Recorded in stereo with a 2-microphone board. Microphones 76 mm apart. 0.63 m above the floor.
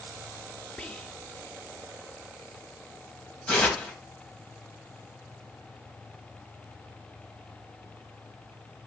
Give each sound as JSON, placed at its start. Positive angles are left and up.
{"t": 0.8, "sound": "whispering", "side_deg": 15, "distance_m": 0.6}
{"t": 3.5, "sound": "tearing paper", "side_deg": 10, "distance_m": 3.0}